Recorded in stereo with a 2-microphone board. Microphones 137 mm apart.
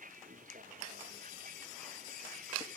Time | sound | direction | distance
0.0 | a vehicle | 75° right (ahead or behind) | ?